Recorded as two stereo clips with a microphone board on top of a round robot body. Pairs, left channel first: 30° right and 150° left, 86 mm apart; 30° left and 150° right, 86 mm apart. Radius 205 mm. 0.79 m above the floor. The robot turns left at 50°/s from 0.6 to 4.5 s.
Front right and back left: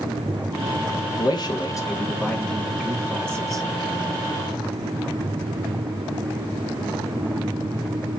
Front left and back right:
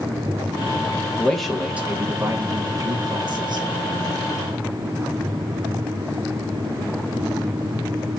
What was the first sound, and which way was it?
A man speaking, 45° right.